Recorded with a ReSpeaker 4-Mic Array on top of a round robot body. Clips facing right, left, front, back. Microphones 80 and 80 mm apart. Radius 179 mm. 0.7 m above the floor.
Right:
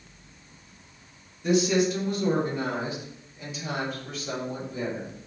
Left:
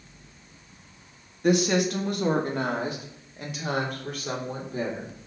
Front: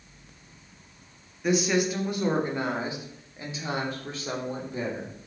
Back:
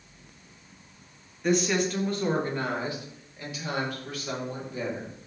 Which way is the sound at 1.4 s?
85° left.